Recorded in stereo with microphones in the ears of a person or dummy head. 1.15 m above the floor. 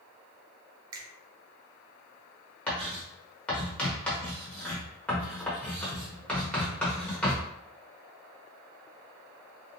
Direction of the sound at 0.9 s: 25° right (ahead or behind).